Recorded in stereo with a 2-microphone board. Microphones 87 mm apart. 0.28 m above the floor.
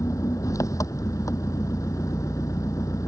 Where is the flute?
No flute in this recording.